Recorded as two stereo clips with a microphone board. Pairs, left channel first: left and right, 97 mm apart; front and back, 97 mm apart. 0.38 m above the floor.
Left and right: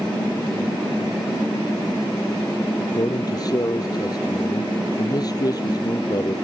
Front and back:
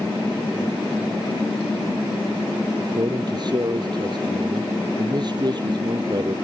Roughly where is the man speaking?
Behind left.